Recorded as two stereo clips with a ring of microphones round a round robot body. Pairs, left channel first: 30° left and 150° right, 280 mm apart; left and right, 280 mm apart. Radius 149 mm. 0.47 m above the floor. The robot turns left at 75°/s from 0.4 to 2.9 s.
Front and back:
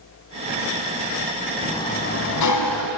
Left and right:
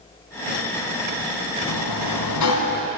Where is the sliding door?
115° left, 2.5 m; by 2.9 s 25° left, 2.5 m.